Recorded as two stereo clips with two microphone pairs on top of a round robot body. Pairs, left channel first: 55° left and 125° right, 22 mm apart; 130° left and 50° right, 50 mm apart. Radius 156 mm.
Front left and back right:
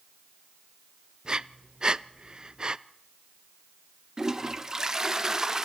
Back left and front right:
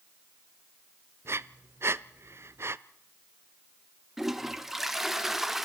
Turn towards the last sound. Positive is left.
turn(degrees=-125)